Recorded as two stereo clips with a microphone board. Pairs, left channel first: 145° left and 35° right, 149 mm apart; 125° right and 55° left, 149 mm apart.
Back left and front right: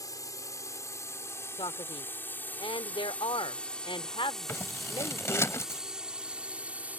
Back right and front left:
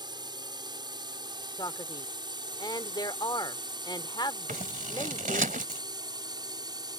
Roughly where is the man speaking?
Behind.